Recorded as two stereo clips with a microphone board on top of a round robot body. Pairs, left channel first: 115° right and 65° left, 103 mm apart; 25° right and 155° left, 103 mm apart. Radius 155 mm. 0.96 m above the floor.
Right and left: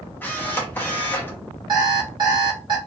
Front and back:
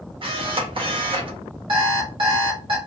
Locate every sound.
0.2 s a camera shutter: straight behind, 1.0 m
1.7 s an alarm clock: 115° left, 1.3 m